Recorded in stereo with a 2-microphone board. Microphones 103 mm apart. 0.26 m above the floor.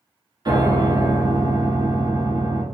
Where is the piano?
40° right (ahead or behind), 0.7 m.